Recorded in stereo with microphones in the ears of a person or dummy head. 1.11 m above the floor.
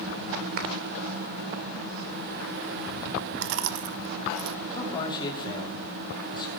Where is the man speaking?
30° left (ahead or behind), 2.5 m.